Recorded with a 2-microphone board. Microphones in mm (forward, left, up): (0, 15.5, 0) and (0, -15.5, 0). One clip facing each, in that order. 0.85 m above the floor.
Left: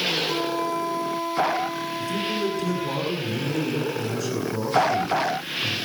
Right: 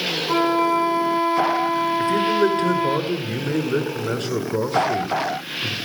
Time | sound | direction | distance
0.3 | a flute | 40° right (ahead or behind) | 1.3 m
2.0 | a man speaking | 45° right (ahead or behind) | 9 m